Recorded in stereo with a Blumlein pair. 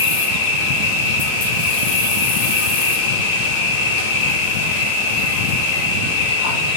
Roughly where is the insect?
Ahead left.